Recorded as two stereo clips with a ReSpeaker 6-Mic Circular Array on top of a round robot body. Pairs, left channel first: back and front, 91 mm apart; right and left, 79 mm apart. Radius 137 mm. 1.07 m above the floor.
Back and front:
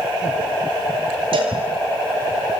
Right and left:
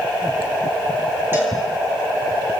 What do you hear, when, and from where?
1.3 s a cowbell: 25° left, 8 m